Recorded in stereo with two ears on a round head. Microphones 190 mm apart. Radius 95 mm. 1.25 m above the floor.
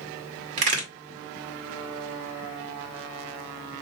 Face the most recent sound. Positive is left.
turn(degrees=-35)  # may be behind; listen again after turning